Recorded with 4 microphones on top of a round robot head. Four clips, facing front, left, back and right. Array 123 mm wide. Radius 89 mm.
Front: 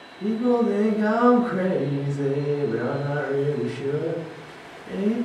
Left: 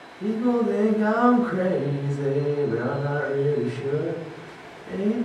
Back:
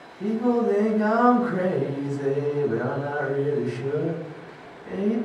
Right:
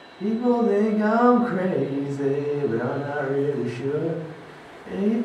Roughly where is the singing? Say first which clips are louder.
Right 2 dB, front 1 dB; behind right.